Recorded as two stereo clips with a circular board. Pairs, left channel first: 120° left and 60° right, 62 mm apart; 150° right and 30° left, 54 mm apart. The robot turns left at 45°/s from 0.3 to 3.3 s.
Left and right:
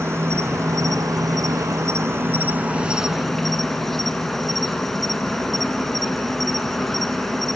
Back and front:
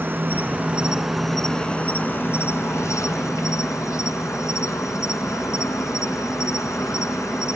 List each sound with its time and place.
0.0 s an insect: 20° right, 1.8 m; by 7.6 s 155° right, 1.8 m